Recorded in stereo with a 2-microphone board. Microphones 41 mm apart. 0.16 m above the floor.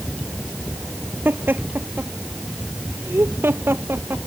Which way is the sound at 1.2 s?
55° right (ahead or behind).